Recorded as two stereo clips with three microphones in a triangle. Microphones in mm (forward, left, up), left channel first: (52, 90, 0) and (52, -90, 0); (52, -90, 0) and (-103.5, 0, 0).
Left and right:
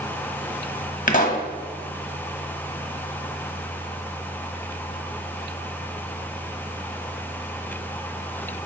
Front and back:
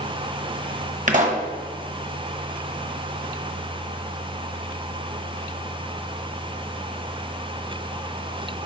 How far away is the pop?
About 0.9 m.